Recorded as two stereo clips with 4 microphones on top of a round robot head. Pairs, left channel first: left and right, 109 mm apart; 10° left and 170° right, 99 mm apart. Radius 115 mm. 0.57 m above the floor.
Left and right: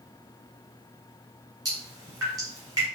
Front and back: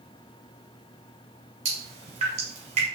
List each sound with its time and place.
1.6 s dripping: 150° right, 1.2 m